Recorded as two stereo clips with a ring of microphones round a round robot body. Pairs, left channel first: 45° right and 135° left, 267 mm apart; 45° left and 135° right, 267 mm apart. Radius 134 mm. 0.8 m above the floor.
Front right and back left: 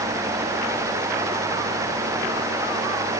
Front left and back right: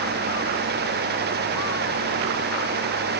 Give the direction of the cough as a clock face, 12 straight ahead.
No cough in this recording.